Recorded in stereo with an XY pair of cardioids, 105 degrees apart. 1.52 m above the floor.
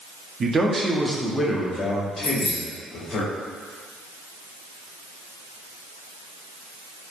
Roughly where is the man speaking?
Ahead right.